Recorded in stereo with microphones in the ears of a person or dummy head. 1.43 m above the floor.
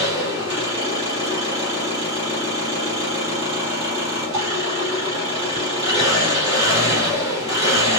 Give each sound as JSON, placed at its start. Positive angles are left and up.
{"t": 0.0, "sound": "an engine running", "side_deg": 20, "distance_m": 3.0}